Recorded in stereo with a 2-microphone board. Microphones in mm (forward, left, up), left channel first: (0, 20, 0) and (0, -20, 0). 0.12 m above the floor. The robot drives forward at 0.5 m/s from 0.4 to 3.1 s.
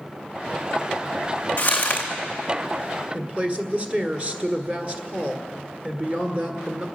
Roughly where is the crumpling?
Left.